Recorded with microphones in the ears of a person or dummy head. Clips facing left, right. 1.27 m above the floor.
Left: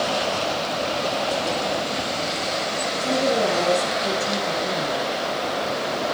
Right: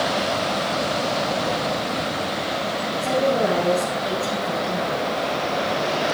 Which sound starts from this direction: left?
A woman speaking, at 3.0 s.